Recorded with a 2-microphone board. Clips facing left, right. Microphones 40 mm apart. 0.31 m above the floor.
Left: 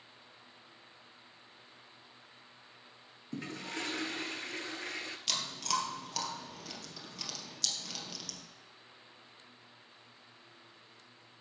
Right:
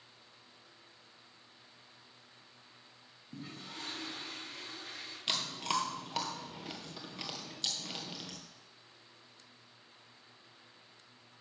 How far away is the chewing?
About 1.8 m.